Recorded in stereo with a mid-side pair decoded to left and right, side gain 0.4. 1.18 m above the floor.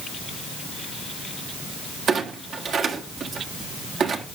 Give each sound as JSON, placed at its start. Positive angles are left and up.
{"t": 2.1, "sound": "a clunk", "azimuth_deg": -65, "distance_m": 1.7}